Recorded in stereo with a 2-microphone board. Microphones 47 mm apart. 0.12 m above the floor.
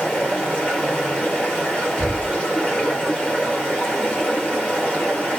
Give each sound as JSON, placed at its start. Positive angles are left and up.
{"t": 0.0, "sound": "running water", "side_deg": 25, "distance_m": 1.7}
{"t": 2.0, "sound": "knocking", "side_deg": -5, "distance_m": 0.7}